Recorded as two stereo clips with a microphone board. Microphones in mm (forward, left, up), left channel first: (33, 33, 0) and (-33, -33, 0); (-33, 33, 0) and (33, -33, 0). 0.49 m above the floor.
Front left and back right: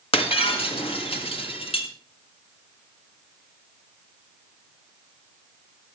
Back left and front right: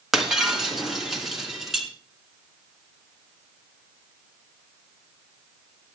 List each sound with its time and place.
0.1 s breaking glass: 45° left, 2.5 m